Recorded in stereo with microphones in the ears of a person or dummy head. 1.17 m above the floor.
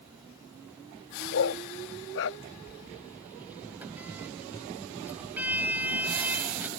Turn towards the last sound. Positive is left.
turn(degrees=-10)  # may be behind; listen again after turning